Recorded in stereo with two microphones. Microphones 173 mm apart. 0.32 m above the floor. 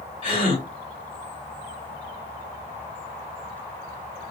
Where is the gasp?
30° left (ahead or behind), 1.7 m.